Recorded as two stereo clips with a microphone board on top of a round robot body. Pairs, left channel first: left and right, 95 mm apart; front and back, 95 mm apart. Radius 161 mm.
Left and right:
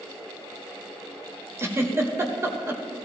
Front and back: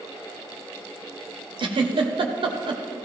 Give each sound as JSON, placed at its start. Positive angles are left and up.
{"t": 1.6, "sound": "a giggle", "azimuth_deg": -150, "distance_m": 1.4}